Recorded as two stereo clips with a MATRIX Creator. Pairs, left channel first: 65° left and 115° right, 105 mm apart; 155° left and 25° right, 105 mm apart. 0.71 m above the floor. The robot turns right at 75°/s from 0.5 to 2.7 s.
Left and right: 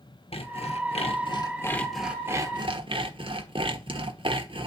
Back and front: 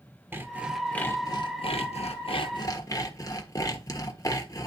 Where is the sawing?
50° left, 1.3 m; by 4.7 s 145° right, 1.3 m.